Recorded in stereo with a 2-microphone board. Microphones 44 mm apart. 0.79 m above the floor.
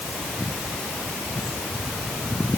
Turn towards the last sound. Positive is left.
No sound to turn to.